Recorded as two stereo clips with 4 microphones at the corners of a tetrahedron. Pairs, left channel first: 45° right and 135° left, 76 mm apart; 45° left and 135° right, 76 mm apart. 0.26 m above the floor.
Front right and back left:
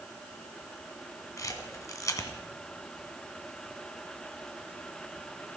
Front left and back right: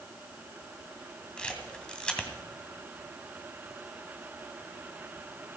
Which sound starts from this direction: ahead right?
A camera shutter, at 1.4 s.